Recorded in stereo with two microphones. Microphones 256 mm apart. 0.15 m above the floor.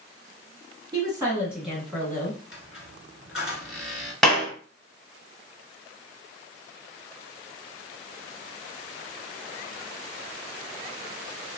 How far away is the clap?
About 1.4 m.